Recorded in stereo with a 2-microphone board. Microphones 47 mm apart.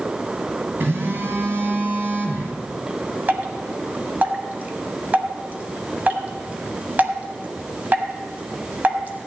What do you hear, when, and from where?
0.8 s a phone buzzing: 50° right (ahead or behind), 1.7 m
3.3 s dripping: 35° right (ahead or behind), 1.2 m